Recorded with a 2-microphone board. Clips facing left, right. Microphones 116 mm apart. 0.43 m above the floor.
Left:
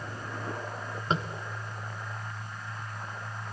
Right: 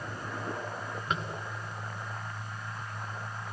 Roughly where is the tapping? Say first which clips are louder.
Left 4 dB; left.